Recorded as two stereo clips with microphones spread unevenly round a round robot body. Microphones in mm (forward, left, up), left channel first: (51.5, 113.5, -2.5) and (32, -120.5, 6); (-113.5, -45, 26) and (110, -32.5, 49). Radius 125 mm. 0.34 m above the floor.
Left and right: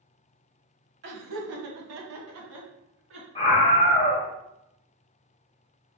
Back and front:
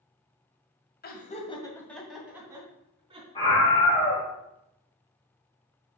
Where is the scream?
135° left, 1.3 m.